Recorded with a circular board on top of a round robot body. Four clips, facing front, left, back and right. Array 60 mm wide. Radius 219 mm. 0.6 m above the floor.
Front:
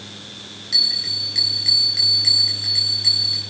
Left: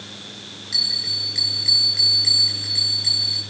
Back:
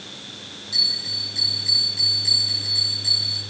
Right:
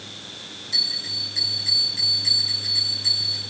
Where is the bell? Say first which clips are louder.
Left 2 dB, front 3 dB; 30° left, 5.5 m.